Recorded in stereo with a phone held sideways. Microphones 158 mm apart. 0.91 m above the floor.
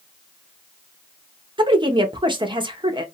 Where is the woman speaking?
30° right (ahead or behind), 0.7 m.